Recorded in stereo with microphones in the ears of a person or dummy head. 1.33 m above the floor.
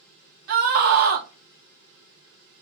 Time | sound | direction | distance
0.5 | a scream | 70° right (ahead or behind) | 1.5 m